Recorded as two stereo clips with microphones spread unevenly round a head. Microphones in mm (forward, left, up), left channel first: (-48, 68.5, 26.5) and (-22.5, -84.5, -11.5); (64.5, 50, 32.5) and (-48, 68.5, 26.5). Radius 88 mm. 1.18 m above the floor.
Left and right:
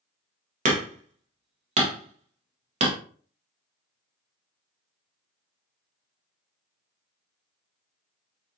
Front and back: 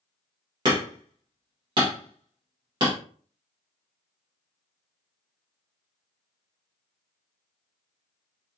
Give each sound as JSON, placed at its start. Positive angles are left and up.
{"t": 0.7, "sound": "hammering", "azimuth_deg": -125, "distance_m": 1.3}